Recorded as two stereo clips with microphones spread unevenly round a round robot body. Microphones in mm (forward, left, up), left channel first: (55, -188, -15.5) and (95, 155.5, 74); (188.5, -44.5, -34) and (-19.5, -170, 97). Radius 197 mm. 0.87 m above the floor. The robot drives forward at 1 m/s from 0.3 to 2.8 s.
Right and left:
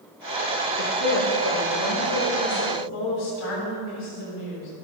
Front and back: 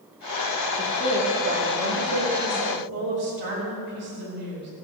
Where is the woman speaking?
105° right, 2.5 m; by 4.7 s 140° right, 3.5 m.